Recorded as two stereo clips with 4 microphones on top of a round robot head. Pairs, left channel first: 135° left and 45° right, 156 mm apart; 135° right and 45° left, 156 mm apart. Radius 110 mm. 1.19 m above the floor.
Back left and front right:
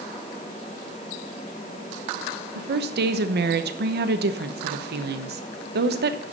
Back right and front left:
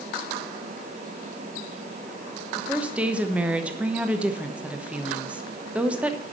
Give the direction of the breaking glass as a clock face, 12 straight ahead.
No breaking glass in this recording.